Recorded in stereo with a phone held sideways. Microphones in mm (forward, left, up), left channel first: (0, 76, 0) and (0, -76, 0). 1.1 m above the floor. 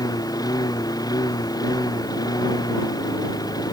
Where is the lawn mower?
25° left (ahead or behind).